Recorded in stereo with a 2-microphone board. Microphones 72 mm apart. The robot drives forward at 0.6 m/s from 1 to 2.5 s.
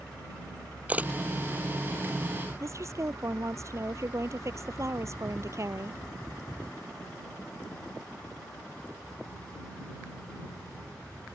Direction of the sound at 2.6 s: 45° right (ahead or behind).